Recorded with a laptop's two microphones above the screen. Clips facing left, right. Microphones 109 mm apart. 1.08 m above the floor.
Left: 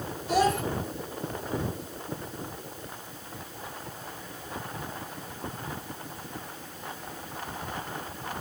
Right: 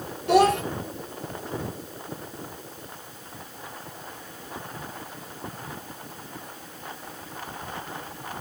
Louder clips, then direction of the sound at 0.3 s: Right 6 dB; 70° right (ahead or behind).